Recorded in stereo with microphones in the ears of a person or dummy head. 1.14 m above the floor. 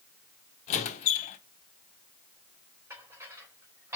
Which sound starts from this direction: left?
A squeak, at 0.7 s.